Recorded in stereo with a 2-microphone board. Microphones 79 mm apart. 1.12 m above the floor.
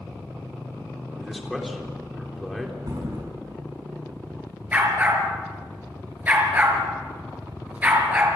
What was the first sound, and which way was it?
A man speaking, centre (ahead or behind).